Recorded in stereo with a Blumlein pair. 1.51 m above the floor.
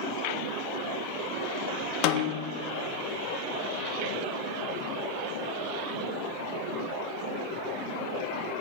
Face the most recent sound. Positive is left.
turn(degrees=40)